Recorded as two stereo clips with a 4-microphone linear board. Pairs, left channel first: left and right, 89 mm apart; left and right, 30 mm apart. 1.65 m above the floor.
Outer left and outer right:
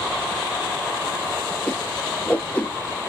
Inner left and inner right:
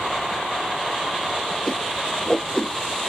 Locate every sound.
1.7 s a whoosh: 15° left (ahead or behind), 1.1 m